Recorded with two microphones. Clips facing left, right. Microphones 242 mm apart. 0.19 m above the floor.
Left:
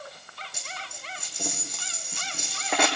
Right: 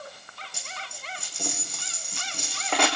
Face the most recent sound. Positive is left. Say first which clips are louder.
# even
turn(degrees=5)  # may be behind; listen again after turning